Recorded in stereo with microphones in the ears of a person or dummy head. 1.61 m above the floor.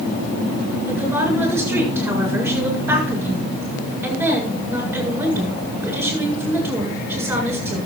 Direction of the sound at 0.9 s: 10° right (ahead or behind).